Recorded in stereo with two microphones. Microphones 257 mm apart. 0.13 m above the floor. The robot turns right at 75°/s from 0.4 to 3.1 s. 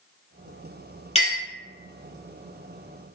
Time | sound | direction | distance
1.1 | a clink | 25° left (ahead or behind) | 1.2 m